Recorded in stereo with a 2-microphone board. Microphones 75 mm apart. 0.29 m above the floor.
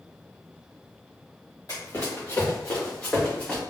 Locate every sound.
1.7 s running footsteps: 45° left (ahead or behind), 1.9 m; by 3.6 s 15° left (ahead or behind), 3 m